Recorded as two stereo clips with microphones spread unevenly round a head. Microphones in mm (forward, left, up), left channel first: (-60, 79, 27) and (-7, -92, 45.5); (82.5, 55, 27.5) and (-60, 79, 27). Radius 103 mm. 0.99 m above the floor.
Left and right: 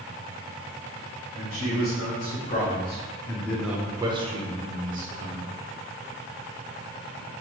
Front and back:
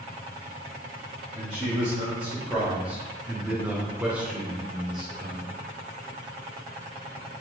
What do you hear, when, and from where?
1.3 s a man speaking: 90° left, 1.7 m; by 5.5 s 100° right, 1.5 m